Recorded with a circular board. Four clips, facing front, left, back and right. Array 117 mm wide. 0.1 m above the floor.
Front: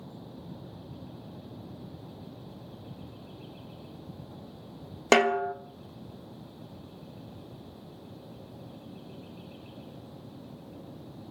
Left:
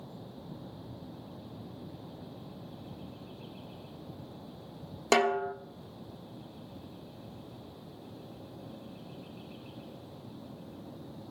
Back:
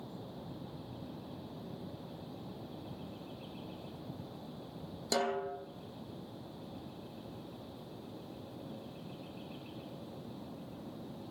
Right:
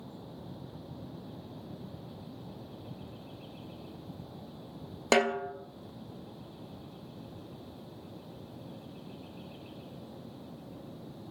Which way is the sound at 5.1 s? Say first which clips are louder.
Left 1 dB, front 11 dB; 10° right.